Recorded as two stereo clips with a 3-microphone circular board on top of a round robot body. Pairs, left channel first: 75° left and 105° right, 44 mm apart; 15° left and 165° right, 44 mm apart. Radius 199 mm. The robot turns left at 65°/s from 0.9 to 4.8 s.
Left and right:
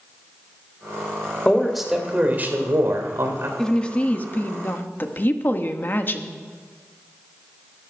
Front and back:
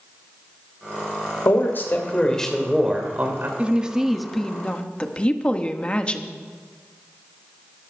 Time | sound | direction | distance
1.4 | a man speaking | 5° left | 3 m
3.6 | a woman speaking | 150° left | 1.5 m